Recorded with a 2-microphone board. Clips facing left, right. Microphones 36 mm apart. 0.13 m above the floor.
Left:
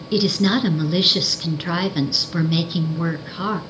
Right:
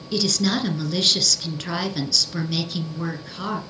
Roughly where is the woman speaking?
Left.